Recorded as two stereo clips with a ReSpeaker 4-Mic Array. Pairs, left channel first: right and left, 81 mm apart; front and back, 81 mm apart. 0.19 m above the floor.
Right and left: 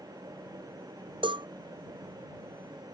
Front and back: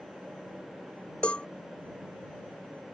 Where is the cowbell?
75° left.